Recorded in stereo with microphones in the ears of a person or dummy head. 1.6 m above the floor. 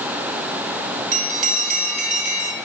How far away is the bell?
About 3.5 m.